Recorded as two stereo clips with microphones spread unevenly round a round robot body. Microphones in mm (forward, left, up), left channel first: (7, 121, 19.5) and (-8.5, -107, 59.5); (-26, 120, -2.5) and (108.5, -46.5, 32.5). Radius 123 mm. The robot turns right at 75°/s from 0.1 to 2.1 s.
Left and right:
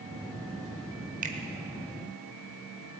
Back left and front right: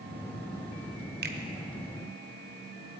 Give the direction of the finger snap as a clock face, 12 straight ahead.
2 o'clock.